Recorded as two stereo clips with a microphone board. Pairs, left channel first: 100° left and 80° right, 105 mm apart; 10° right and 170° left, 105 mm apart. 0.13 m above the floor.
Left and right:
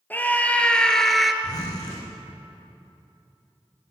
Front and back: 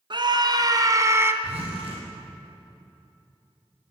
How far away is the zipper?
About 6.5 m.